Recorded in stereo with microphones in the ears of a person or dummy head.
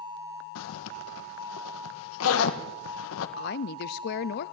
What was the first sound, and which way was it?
A zipper, 80° left.